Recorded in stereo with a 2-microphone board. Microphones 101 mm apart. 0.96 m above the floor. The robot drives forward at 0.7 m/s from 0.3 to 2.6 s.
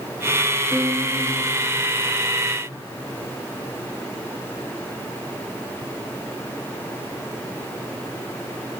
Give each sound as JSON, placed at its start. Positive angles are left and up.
{"t": 0.7, "sound": "a guitar", "side_deg": -30, "distance_m": 3.0}